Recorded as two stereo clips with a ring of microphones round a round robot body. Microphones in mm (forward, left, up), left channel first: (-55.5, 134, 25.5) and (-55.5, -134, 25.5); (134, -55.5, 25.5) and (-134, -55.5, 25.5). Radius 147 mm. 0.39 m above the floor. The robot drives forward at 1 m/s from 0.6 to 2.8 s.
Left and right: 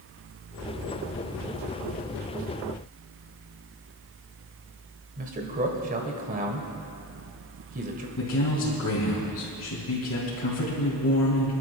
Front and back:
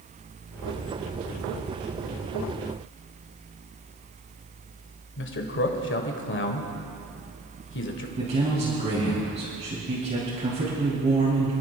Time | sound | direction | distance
5.2 | a man speaking | 35° right | 1.7 m
8.2 | a man speaking | 115° left | 2.5 m